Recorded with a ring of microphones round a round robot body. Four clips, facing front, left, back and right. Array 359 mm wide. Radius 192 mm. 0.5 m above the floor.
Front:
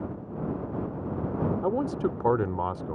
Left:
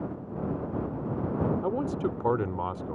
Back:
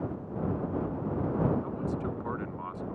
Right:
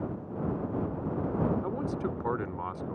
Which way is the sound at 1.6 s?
25° left.